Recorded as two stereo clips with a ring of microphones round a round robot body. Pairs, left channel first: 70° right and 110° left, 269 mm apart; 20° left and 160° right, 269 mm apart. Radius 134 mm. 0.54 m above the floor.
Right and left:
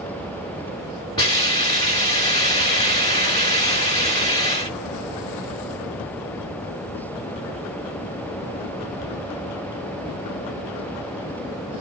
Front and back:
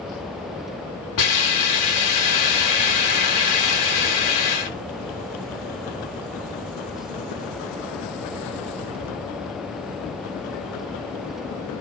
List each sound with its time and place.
1.2 s a hiss: 10° left, 9.5 m